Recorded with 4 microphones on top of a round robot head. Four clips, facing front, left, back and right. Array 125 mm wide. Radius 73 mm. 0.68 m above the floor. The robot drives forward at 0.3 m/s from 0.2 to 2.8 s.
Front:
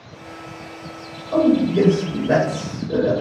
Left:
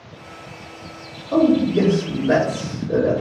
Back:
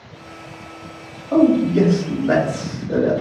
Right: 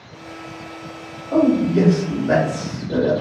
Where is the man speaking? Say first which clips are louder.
Even, back 2 dB; 175° left, 1.5 m.